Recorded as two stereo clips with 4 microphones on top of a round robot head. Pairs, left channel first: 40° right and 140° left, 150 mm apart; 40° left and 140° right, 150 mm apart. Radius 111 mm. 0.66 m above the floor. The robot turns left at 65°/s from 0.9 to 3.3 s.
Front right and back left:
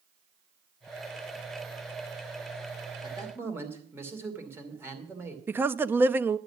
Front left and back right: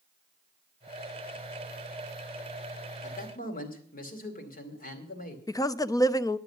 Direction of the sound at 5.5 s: 80° left.